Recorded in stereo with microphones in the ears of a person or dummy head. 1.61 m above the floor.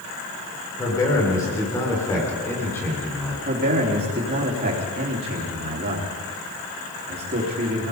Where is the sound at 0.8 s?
20° left (ahead or behind), 5 m; by 3.4 s 5° left (ahead or behind), 4 m.